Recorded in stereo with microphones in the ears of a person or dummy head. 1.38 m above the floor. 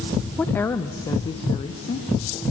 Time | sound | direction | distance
0.4 | a woman speaking | 5° left (ahead or behind) | 0.7 m